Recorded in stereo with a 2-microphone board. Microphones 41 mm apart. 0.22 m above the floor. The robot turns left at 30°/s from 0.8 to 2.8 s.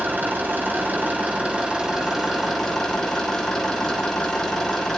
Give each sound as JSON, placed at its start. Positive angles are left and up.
{"t": 0.0, "sound": "an engine running", "azimuth_deg": -130, "distance_m": 4.5}